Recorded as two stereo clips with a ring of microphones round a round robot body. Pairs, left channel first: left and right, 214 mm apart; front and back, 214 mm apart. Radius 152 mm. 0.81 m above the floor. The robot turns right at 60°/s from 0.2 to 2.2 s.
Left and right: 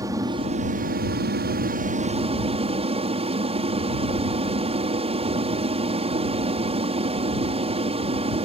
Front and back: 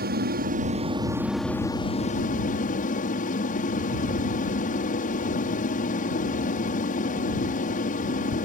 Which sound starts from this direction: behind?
An aircraft, at 0.0 s.